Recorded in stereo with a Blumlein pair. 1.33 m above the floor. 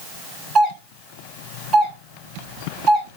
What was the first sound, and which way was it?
A doorbell, 15° right.